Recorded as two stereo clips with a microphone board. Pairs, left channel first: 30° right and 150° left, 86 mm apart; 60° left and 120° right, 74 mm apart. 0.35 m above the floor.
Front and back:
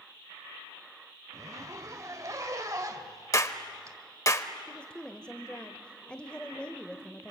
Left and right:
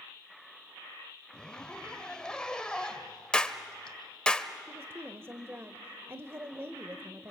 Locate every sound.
1.3 s a zipper: 135° left, 1.5 m
3.3 s a clap: 10° right, 1.0 m
4.7 s a woman speaking: 100° right, 1.0 m